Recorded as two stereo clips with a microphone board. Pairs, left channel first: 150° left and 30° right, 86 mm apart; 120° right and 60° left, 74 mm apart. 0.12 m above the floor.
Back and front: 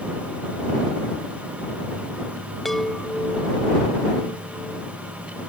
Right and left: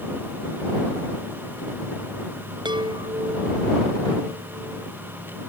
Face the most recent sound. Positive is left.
turn(degrees=60)